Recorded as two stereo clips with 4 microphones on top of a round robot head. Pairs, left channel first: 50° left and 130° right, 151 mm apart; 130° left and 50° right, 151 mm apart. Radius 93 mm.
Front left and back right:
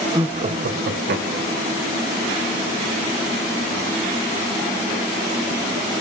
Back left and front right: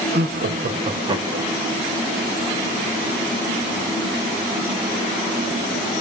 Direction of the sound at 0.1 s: 65° right.